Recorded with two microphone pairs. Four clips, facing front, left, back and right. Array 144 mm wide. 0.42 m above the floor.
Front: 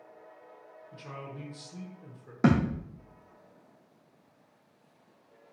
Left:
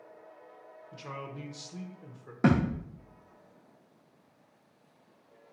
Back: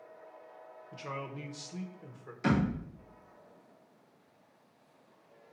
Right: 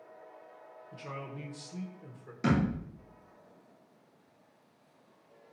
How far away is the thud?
About 2.5 m.